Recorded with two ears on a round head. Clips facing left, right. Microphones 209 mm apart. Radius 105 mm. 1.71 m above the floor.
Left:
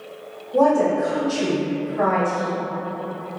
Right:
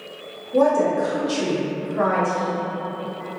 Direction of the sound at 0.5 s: 35° right (ahead or behind).